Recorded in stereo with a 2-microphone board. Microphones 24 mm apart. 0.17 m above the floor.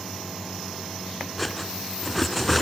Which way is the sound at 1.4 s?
Centre (ahead or behind).